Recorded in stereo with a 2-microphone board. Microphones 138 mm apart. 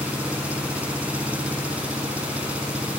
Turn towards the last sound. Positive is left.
turn(degrees=-10)  # may be behind; listen again after turning